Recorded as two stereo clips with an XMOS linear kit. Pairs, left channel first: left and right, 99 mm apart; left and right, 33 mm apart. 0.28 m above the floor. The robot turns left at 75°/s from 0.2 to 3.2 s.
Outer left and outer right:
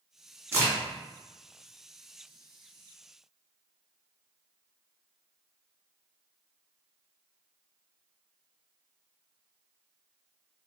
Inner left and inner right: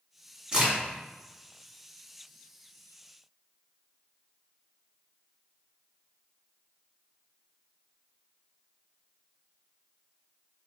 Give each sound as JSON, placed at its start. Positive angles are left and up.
{"t": 0.5, "sound": "a crack", "side_deg": -25, "distance_m": 1.9}